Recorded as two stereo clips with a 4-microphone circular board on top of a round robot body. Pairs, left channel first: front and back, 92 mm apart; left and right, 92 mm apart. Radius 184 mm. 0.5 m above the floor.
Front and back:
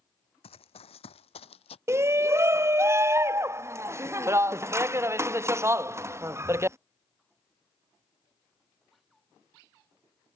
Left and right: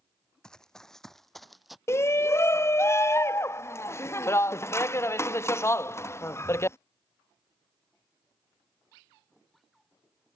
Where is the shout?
135° left.